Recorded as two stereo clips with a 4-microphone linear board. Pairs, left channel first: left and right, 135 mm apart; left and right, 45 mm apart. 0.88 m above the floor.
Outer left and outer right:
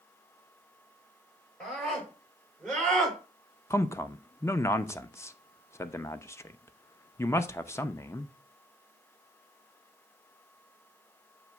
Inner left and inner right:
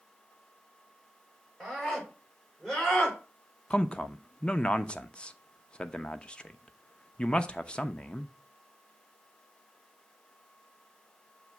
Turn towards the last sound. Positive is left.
turn(degrees=20)  # may be behind; listen again after turning